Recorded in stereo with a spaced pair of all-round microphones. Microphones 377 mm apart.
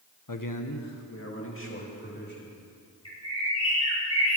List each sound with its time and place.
0.3 s a man speaking: 60° left (ahead or behind), 1.0 m; by 2.6 s 25° left (ahead or behind), 4 m
3.0 s a bird: 40° left (ahead or behind), 4 m